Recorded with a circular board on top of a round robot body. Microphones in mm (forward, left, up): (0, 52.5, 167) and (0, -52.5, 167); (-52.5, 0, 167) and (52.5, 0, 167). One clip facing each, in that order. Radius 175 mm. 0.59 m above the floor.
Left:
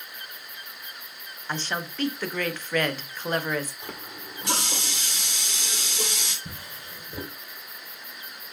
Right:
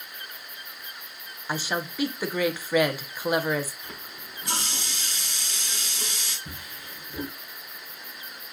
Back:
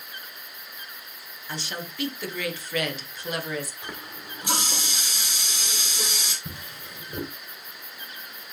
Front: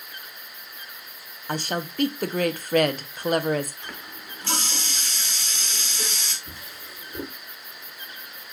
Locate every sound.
1.5 s a woman speaking: 10° right, 1.0 m
3.8 s a running tap: 105° left, 1.8 m
6.5 s a drawer: 145° left, 2.5 m